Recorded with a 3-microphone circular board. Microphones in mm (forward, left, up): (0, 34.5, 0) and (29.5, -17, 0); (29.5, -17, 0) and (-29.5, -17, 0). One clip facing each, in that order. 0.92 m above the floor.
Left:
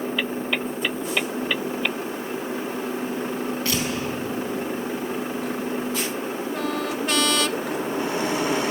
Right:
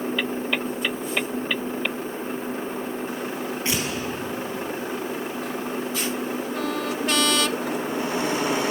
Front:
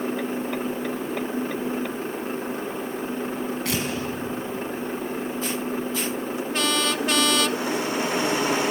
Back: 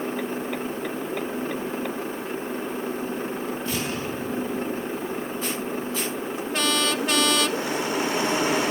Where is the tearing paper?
5° left, 4.5 m.